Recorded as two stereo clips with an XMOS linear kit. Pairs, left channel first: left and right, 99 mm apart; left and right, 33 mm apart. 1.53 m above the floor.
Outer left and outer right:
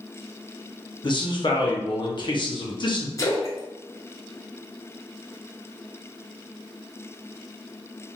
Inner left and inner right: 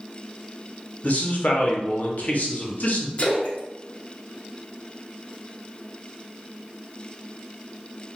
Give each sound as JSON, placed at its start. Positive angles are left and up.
{"t": 1.0, "sound": "a man speaking", "side_deg": 50, "distance_m": 0.7}
{"t": 3.2, "sound": "a splash", "side_deg": 30, "distance_m": 0.9}